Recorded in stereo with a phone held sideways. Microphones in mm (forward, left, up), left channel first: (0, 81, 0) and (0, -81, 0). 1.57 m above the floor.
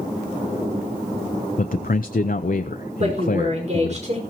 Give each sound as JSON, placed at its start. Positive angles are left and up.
{"t": 1.6, "sound": "a man speaking", "side_deg": 60, "distance_m": 0.6}
{"t": 3.0, "sound": "a woman speaking", "side_deg": -45, "distance_m": 5.0}